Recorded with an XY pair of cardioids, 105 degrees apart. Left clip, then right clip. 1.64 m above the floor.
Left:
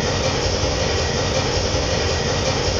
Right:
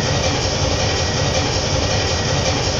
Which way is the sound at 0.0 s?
35° right.